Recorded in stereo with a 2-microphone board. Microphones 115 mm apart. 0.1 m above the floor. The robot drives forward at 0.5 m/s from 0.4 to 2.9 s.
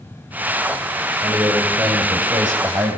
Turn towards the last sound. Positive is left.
turn(degrees=-30)  # may be behind; listen again after turning